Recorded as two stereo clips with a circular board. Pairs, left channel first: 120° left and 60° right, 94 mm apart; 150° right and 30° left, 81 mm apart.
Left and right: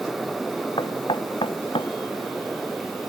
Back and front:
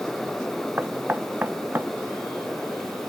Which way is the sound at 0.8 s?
95° left.